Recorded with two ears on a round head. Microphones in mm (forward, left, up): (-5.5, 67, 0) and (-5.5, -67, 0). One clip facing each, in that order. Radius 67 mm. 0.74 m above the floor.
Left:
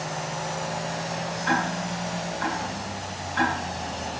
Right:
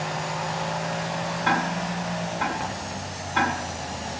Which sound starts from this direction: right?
Ticking, at 1.4 s.